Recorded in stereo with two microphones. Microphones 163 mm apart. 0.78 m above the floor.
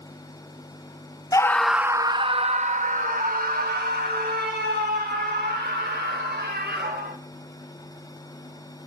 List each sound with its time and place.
1.3 s a scream: 20° left (ahead or behind), 0.5 m; by 7.2 s 75° right (ahead or behind), 3 m